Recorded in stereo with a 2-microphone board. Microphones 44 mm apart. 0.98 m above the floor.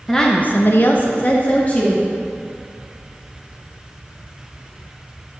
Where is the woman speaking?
10° left (ahead or behind), 0.8 m; by 2.1 s 35° left (ahead or behind), 2.5 m.